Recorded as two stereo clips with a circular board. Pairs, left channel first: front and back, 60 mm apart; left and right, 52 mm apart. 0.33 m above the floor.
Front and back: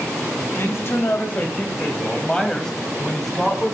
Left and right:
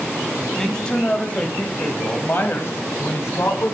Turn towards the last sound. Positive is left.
turn(degrees=95)